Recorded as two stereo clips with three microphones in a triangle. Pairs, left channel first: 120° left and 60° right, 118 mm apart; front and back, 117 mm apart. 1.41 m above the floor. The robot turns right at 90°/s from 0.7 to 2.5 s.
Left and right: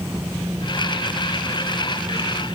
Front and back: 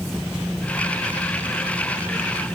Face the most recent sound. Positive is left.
No sound to turn to.